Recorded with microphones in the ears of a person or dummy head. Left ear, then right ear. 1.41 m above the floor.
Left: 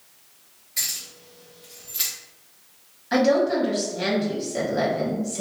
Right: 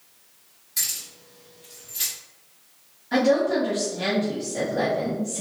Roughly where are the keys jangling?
Centre.